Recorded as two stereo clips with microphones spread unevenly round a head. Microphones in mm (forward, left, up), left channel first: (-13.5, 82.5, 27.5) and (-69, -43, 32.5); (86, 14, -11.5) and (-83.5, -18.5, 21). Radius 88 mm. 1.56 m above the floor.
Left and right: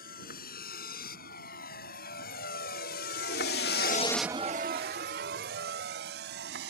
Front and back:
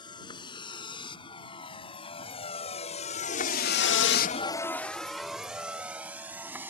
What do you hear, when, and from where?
0.0 s a vehicle: 80° left; by 6.7 s 90° right